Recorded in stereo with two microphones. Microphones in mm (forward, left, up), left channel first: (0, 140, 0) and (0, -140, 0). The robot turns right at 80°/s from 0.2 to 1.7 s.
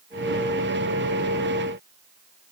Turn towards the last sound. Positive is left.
No sound to turn to.